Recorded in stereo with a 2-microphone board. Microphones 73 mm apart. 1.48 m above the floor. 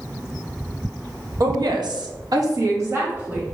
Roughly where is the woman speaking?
Right.